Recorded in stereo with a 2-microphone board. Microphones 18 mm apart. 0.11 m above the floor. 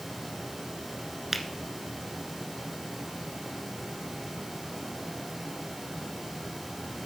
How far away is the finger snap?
About 1.3 m.